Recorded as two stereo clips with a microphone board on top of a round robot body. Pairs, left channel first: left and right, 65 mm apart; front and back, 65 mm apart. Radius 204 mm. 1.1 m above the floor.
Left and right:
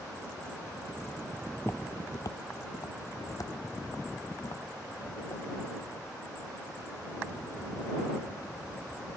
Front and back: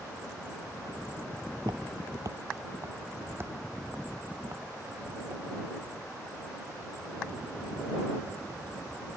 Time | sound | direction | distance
1.6 | footsteps | 160° left | ?